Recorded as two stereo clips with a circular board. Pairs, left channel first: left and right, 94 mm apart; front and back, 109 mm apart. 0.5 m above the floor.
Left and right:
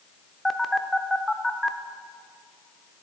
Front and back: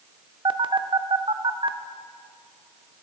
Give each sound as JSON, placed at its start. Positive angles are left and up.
{"t": 0.5, "sound": "a phone buzzing", "azimuth_deg": 180, "distance_m": 0.5}